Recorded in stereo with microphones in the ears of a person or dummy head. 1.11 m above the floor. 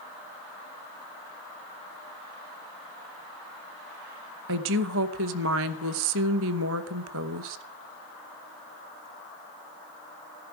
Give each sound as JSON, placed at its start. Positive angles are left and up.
{"t": 4.5, "sound": "a woman speaking", "side_deg": -70, "distance_m": 1.0}